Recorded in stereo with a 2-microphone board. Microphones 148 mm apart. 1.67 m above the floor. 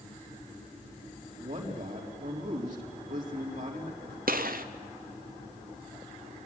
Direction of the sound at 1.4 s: 60° right (ahead or behind).